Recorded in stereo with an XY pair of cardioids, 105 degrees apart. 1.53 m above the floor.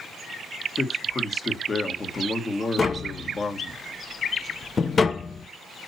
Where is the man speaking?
30° left, 1.7 m.